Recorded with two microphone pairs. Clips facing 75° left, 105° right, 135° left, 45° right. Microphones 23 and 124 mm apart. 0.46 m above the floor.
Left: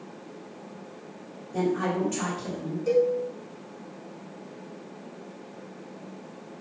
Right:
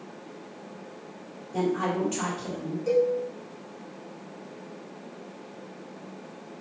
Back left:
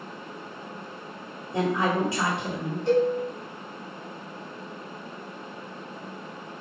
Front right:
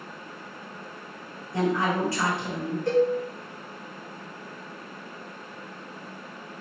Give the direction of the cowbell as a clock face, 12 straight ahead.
12 o'clock.